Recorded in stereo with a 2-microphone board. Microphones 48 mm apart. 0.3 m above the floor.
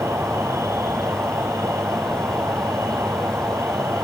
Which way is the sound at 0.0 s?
85° right.